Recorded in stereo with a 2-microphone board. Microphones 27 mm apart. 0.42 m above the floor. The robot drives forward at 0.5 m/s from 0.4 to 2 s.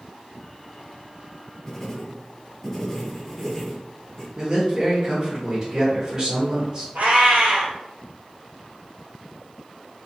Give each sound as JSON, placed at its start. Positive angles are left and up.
{"t": 1.7, "sound": "writing", "side_deg": 20, "distance_m": 0.6}
{"t": 4.4, "sound": "a man speaking", "side_deg": -20, "distance_m": 1.0}
{"t": 7.0, "sound": "a cat meowing", "side_deg": -75, "distance_m": 1.2}